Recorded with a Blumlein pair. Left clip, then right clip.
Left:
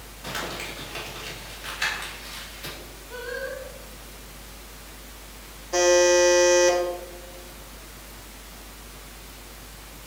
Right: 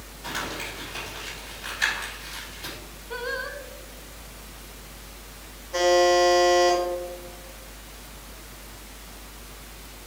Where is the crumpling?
5° left, 3.5 m.